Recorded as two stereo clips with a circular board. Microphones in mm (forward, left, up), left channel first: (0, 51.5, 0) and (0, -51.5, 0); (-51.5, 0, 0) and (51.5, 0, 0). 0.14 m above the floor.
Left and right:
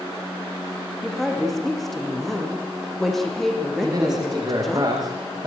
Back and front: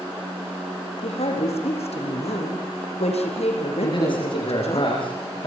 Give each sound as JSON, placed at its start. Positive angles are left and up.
{"t": 1.0, "sound": "a woman speaking", "azimuth_deg": 175, "distance_m": 6.0}
{"t": 3.8, "sound": "a man speaking", "azimuth_deg": -140, "distance_m": 9.0}